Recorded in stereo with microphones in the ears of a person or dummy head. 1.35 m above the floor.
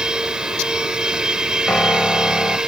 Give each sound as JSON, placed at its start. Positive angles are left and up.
{"t": 0.0, "sound": "a machine running", "side_deg": 0}
{"t": 1.7, "sound": "a piano", "side_deg": 10}